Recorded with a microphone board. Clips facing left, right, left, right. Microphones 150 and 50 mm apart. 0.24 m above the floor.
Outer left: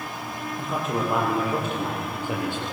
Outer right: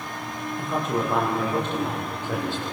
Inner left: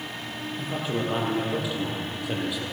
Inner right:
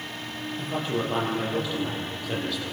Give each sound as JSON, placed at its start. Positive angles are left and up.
{"t": 0.6, "sound": "a man speaking", "side_deg": 0, "distance_m": 7.5}